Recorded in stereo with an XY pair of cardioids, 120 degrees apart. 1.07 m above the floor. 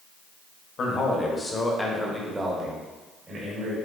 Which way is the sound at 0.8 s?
45° left.